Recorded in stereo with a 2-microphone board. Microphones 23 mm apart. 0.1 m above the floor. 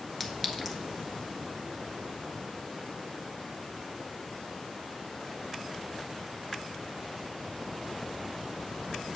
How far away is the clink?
About 0.7 m.